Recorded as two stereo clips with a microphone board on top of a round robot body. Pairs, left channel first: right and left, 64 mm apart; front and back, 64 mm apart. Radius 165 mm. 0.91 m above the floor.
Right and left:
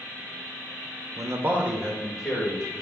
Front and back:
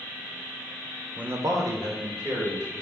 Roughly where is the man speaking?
Left.